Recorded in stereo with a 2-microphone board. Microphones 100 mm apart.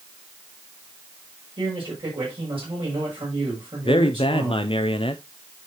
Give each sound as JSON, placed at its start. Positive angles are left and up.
{"t": 1.6, "sound": "a man speaking", "side_deg": -60, "distance_m": 6.5}
{"t": 3.8, "sound": "a man speaking", "side_deg": 60, "distance_m": 0.6}